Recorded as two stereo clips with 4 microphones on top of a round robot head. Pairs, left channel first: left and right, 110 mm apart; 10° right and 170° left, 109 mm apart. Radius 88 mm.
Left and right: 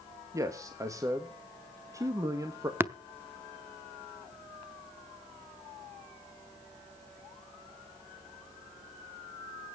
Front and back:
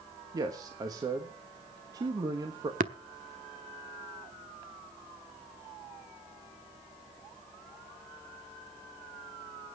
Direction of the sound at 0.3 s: 140° right.